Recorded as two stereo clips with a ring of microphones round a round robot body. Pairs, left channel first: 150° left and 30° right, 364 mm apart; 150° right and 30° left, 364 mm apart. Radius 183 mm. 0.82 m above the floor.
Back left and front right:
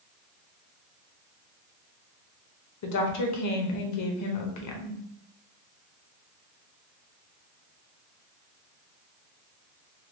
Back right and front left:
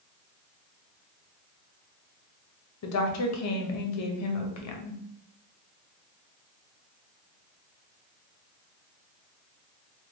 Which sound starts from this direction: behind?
A woman speaking, at 2.8 s.